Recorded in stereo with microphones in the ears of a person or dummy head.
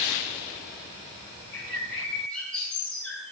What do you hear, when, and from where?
1.5 s a bird: 10° left (ahead or behind), 7.5 m